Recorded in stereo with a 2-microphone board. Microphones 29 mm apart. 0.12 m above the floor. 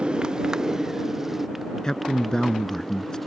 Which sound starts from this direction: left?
A man speaking, at 1.8 s.